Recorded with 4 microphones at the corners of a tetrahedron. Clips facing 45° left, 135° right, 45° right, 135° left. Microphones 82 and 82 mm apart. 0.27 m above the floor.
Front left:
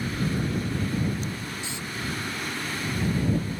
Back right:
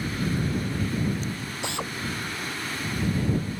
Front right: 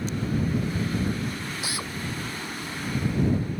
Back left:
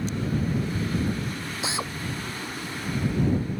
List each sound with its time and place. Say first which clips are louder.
1.6 s a drill: back right 5 dB, back left 2 dB; 160° right